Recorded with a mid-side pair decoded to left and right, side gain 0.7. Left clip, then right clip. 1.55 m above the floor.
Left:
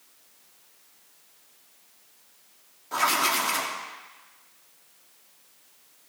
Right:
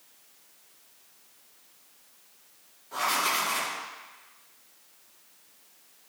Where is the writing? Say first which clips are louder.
Left 3 dB; 40° left, 3 m.